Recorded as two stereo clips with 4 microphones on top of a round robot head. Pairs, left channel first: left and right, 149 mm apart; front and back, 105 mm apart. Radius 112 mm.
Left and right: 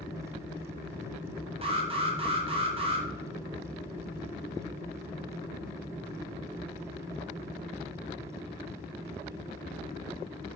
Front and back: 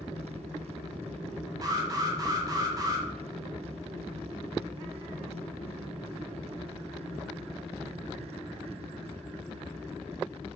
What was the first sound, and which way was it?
An alarm, 130° right.